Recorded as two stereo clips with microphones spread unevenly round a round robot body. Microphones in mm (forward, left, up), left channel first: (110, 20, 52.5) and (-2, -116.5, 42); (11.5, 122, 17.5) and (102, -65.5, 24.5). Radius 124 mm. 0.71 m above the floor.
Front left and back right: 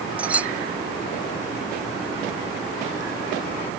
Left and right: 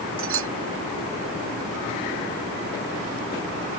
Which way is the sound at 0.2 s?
45° right.